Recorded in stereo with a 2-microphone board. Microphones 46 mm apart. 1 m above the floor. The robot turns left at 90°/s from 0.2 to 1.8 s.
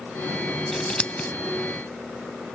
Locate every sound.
0.7 s scissors: 5° left (ahead or behind); by 1.3 s 40° left (ahead or behind)